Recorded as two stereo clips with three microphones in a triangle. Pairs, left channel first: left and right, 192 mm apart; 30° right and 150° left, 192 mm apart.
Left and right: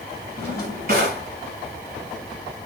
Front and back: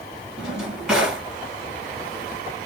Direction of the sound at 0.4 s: 125° right.